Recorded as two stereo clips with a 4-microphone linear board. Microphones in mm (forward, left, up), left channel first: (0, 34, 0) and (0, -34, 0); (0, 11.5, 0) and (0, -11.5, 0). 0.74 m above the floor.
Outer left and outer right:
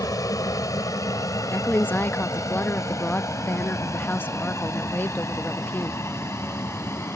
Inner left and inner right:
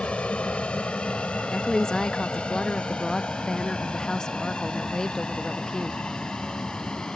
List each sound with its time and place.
0.0 s an aircraft: 60° left (ahead or behind); by 7.2 s 40° left (ahead or behind)
1.5 s a woman speaking: 30° left (ahead or behind)